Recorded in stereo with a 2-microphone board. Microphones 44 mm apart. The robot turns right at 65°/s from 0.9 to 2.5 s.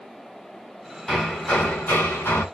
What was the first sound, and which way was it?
Hammering, 5° left.